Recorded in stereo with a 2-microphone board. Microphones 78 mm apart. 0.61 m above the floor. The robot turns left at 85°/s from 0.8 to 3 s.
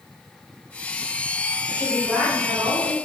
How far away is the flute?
No flute in this recording.